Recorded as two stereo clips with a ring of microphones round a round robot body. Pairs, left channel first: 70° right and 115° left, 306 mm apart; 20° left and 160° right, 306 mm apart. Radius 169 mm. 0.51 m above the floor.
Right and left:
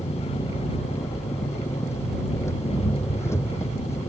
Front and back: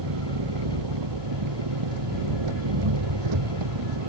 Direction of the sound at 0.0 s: 150° right.